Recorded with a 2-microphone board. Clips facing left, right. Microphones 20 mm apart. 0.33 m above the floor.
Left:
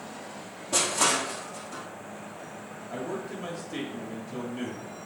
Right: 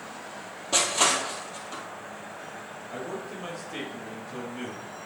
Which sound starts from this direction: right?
Crushing, at 0.7 s.